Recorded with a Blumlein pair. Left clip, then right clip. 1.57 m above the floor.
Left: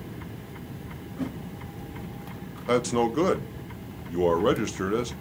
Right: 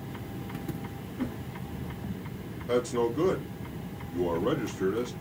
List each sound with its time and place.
1.2 s a whoosh: 35° left, 1.8 m
2.7 s a man speaking: 55° left, 1.0 m